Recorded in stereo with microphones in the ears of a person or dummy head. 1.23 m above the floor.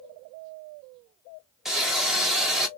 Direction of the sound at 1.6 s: Centre (ahead or behind).